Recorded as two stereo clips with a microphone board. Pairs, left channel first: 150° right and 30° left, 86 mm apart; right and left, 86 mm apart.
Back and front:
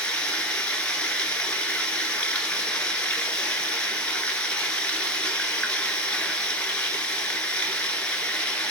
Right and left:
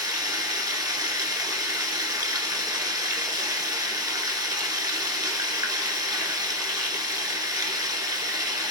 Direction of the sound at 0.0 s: 135° left.